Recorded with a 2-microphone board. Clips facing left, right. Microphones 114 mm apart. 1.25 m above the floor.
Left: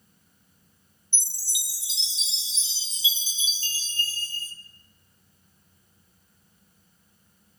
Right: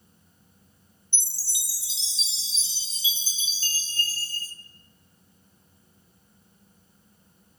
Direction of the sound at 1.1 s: 20° left (ahead or behind).